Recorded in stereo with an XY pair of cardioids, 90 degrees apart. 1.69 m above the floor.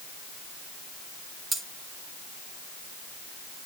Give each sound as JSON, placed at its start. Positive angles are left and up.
{"t": 1.5, "sound": "cutlery clinking", "azimuth_deg": -50, "distance_m": 3.0}